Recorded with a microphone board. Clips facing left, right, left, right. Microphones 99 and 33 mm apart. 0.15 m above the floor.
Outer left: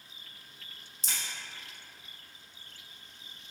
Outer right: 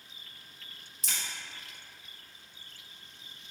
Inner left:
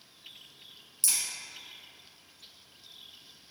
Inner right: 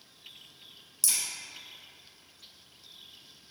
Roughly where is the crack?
Left.